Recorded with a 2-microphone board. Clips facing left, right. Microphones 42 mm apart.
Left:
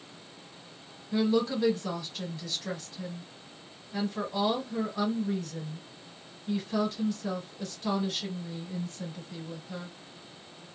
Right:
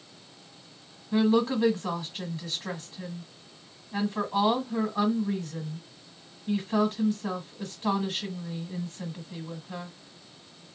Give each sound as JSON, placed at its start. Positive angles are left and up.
{"t": 1.1, "sound": "a woman speaking", "side_deg": -30, "distance_m": 1.1}